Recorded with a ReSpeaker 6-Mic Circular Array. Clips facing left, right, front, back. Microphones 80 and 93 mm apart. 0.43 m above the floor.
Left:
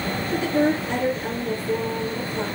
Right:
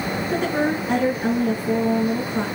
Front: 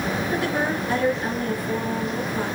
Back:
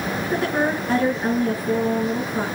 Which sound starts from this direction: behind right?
A woman speaking, at 0.3 s.